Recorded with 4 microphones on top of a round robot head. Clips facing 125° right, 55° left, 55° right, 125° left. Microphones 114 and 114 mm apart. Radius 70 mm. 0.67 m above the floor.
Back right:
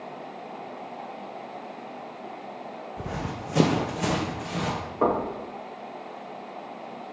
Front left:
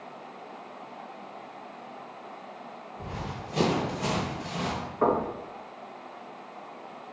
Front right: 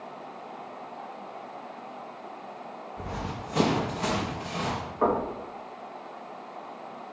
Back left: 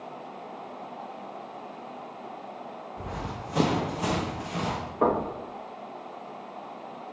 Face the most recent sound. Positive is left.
turn(degrees=180)